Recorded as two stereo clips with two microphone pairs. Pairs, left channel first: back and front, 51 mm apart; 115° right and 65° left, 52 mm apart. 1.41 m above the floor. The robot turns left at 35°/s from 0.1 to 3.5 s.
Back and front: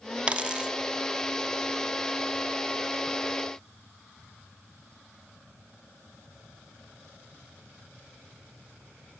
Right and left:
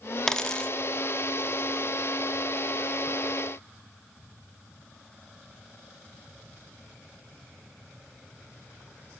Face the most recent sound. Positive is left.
turn(degrees=-160)